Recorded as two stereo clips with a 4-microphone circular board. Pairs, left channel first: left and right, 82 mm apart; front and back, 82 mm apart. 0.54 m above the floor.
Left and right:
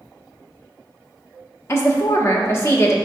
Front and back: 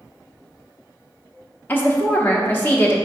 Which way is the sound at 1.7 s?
55° left.